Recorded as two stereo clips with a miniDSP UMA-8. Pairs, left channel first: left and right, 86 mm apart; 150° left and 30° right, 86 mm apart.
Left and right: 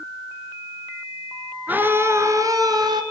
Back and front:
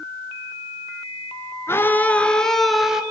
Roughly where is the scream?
Behind right.